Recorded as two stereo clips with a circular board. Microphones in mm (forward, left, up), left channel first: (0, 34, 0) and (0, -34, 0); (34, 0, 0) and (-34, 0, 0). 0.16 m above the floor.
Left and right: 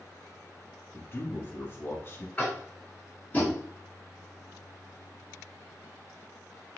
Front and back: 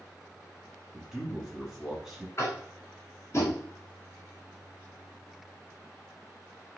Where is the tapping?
25° left, 1.3 m.